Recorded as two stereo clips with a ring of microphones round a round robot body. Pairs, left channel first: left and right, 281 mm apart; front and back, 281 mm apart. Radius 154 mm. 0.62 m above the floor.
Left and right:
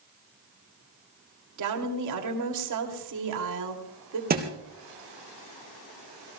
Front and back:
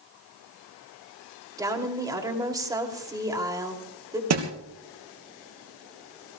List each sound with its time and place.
1.6 s a woman speaking: 105° right, 2.5 m
4.3 s a thud: 150° right, 3 m